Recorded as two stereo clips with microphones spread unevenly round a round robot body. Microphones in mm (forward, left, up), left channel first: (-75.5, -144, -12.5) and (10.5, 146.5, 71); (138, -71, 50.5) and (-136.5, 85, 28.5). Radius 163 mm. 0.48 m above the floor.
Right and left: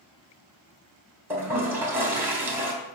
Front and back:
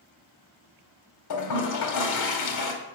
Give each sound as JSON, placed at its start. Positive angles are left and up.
{"t": 1.3, "sound": "a toilet flushing", "azimuth_deg": -20, "distance_m": 1.9}